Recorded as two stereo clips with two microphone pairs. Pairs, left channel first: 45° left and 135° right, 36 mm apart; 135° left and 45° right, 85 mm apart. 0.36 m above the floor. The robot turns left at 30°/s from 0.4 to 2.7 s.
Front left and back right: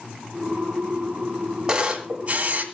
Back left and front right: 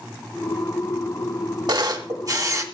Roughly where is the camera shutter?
Ahead right.